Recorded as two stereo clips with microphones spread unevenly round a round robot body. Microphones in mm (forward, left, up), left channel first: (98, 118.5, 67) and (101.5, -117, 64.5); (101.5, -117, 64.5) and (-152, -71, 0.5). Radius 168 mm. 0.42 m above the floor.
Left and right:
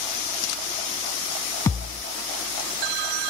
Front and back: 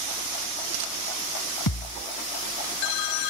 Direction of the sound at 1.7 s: 10° left.